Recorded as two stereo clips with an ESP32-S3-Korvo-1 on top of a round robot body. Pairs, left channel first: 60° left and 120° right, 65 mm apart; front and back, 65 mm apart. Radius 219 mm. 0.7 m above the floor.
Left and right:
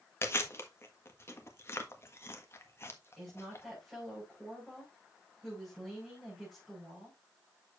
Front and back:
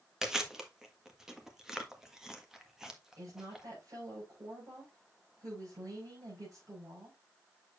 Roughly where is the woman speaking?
Behind left.